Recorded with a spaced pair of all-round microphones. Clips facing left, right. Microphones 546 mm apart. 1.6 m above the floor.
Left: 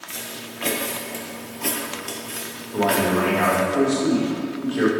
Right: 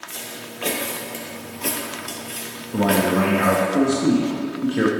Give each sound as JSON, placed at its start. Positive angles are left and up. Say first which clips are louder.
{"t": 0.1, "sound": "footsteps", "louder": "even", "side_deg": 30, "distance_m": 1.8}
{"t": 2.7, "sound": "a man speaking", "louder": "right 2 dB", "side_deg": -50, "distance_m": 0.9}